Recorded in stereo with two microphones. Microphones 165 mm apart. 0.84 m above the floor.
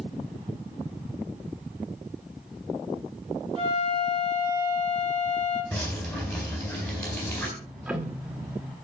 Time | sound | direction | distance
3.5 | a flute | 30° right (ahead or behind) | 5 m
5.7 | dripping | 5° left (ahead or behind) | 4 m
7.6 | ticking | 10° right (ahead or behind) | 1.3 m